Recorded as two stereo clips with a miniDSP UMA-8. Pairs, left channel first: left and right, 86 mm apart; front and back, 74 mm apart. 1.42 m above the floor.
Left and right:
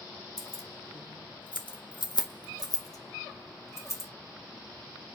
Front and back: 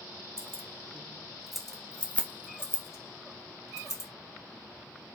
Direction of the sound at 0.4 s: 125° left.